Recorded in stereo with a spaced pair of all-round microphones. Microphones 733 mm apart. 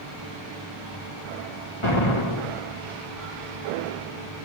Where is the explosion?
40° left (ahead or behind), 2.5 m.